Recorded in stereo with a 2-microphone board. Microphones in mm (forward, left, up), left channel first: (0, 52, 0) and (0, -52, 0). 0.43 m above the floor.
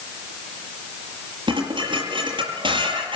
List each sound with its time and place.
1.5 s dishes clattering: 50° right (ahead or behind), 6.5 m